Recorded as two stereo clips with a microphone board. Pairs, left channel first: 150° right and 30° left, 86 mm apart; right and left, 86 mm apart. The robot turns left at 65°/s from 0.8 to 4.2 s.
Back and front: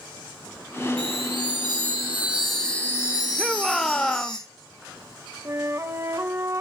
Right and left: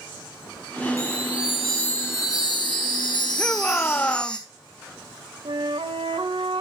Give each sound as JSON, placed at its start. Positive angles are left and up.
{"t": 1.0, "sound": "a chime", "azimuth_deg": 40, "distance_m": 3.5}
{"t": 3.4, "sound": "a shout", "azimuth_deg": -50, "distance_m": 0.6}
{"t": 5.5, "sound": "a flute", "azimuth_deg": 85, "distance_m": 0.7}